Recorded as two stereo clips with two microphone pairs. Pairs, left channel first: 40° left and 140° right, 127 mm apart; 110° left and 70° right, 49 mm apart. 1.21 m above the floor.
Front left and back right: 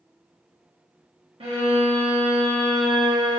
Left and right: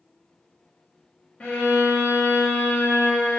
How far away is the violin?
About 0.7 m.